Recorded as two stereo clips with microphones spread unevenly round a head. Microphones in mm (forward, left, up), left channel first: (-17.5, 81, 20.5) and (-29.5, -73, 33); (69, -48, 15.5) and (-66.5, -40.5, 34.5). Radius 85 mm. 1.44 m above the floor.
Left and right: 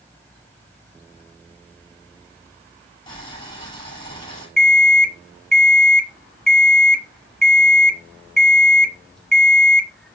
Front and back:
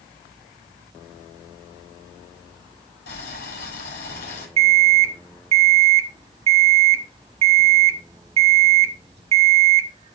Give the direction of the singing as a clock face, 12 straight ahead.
No singing in this recording.